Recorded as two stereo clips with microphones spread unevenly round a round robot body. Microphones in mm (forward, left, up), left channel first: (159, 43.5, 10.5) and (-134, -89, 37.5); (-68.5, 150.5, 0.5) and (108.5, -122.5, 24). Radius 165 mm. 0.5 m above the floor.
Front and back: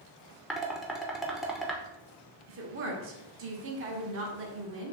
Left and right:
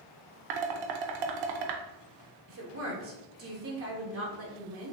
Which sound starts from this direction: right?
A woman speaking, at 2.5 s.